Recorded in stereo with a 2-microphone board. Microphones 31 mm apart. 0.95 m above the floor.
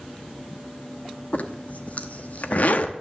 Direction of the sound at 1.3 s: 55° left (ahead or behind).